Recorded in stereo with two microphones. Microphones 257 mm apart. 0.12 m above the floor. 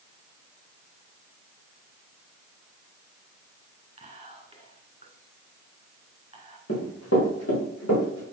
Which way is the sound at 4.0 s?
25° right (ahead or behind).